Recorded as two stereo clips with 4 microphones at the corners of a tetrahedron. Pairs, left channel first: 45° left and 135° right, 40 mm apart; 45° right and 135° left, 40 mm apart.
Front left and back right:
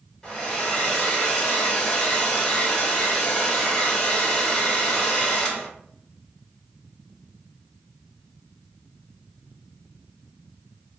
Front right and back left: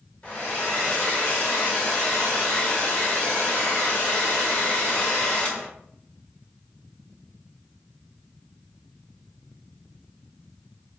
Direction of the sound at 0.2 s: 25° right.